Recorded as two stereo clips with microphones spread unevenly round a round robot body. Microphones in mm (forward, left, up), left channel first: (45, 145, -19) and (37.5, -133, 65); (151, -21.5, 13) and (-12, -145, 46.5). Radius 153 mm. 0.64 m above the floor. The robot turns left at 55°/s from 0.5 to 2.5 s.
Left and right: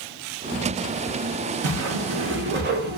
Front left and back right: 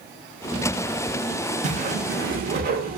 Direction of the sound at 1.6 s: 100° right.